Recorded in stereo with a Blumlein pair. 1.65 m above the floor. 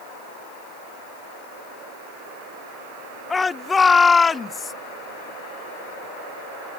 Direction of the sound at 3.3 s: 10° left.